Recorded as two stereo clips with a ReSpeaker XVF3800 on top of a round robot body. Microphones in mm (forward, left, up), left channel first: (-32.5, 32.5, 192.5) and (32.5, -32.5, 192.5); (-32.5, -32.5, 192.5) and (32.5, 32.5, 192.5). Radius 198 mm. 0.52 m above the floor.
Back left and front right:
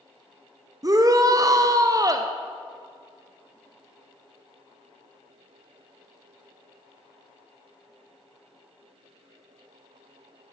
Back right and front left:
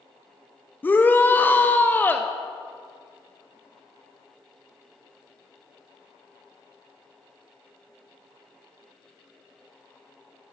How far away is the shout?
About 0.7 m.